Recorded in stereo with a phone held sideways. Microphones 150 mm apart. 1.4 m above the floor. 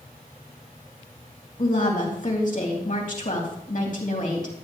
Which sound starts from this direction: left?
A woman speaking, at 1.6 s.